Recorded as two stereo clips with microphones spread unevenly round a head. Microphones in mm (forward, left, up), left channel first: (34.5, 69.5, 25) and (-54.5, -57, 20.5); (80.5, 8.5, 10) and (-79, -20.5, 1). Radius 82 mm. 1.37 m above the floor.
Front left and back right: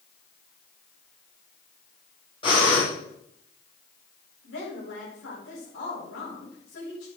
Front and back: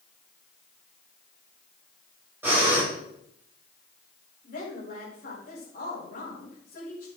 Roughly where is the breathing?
Left.